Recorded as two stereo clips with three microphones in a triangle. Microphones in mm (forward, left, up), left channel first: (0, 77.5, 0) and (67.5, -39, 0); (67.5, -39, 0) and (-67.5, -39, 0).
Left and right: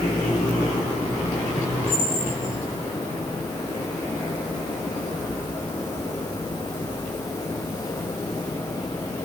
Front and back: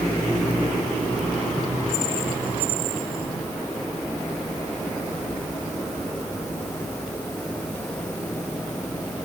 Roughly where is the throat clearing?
No throat clearing in this recording.